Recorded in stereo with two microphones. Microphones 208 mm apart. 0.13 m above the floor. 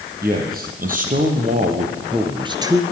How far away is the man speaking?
About 3.5 m.